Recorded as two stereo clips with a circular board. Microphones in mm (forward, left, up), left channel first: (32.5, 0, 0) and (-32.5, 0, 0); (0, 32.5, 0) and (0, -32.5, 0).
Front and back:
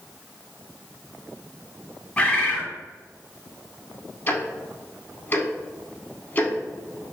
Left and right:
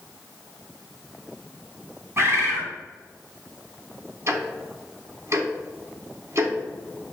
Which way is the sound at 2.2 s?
70° right.